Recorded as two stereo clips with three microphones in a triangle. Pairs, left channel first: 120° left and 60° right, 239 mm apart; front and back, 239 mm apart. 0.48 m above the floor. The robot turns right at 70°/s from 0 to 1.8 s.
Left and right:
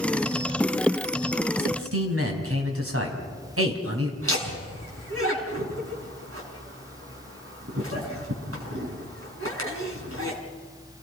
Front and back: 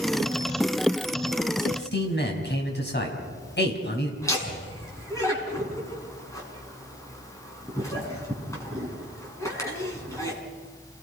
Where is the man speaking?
60° right, 4 m; by 4.1 s 40° right, 4 m.